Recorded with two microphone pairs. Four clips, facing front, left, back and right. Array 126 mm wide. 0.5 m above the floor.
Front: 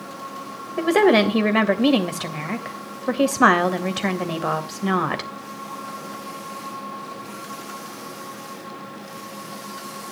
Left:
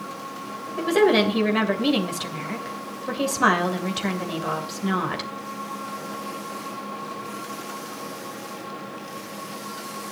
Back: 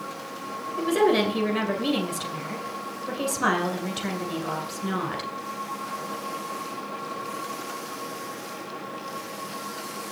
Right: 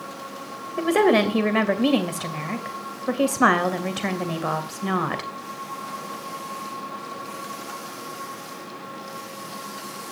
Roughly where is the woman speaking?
Ahead.